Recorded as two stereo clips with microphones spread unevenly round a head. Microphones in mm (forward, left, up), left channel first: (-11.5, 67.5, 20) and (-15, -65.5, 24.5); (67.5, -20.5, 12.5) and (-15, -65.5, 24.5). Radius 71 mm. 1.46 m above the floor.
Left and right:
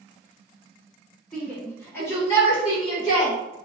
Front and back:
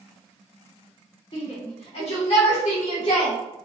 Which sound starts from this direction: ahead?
A shout, at 1.3 s.